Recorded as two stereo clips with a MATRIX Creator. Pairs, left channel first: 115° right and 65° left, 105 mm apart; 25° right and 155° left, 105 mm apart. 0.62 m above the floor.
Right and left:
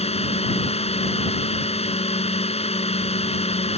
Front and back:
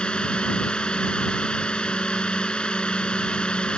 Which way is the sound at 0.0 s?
105° right.